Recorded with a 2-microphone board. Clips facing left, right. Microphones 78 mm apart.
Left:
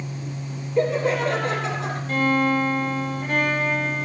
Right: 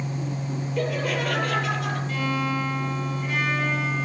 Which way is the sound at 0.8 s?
25° left (ahead or behind).